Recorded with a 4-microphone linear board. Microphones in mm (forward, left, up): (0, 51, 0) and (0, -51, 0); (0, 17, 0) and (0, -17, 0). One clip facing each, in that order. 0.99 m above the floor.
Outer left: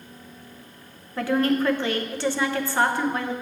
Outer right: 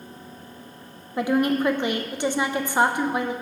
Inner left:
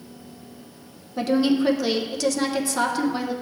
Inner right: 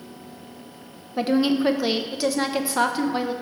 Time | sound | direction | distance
1.2 | a woman speaking | 15° right (ahead or behind) | 0.5 m